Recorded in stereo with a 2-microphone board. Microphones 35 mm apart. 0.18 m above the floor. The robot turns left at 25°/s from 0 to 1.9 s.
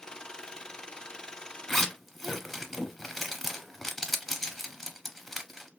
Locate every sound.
1.7 s a zipper: 15° left (ahead or behind), 0.8 m; by 5.7 s 10° left (ahead or behind), 0.8 m